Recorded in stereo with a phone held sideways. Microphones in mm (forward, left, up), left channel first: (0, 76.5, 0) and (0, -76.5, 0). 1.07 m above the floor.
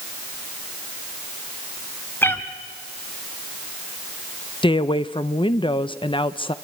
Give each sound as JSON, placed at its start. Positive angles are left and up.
{"t": 2.2, "sound": "a cat meowing", "side_deg": 15, "distance_m": 1.1}
{"t": 4.6, "sound": "a woman speaking", "side_deg": 35, "distance_m": 0.6}